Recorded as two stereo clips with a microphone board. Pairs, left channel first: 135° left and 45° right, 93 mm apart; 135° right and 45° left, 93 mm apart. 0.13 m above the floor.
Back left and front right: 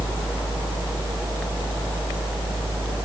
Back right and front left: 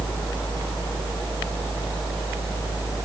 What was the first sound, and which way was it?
Only background noise.